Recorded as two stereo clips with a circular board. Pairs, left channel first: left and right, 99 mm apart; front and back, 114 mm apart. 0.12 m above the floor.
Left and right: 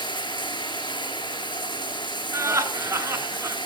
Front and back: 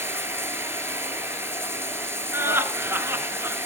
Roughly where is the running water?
Behind left.